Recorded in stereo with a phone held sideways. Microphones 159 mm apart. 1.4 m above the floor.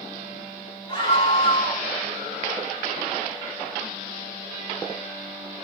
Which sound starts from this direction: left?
A scream, at 0.9 s.